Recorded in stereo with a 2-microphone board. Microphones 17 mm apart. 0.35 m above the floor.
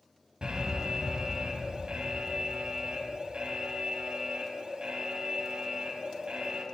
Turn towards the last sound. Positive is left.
turn(degrees=-55)  # may be behind; listen again after turning